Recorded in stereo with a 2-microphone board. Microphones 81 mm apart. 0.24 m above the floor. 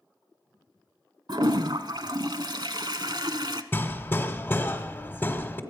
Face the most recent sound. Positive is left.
turn(degrees=25)  # may be behind; listen again after turning